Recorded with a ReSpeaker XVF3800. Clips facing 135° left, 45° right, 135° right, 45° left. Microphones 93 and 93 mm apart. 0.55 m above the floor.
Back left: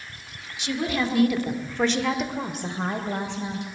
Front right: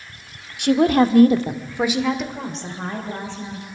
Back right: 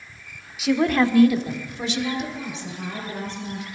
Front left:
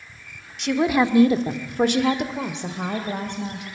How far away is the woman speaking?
About 1.6 m.